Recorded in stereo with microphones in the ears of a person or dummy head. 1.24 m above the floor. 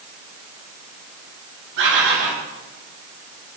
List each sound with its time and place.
1.8 s a bird: 70° right (ahead or behind), 3.5 m